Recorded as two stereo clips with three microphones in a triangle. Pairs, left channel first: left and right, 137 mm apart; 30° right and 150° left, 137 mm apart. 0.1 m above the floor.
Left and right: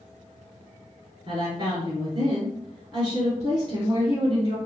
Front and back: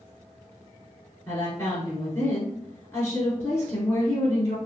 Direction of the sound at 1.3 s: 80° right.